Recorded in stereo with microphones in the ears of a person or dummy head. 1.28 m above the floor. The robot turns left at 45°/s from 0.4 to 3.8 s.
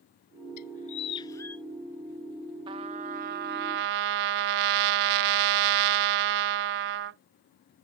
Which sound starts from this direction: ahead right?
A trumpet, at 2.7 s.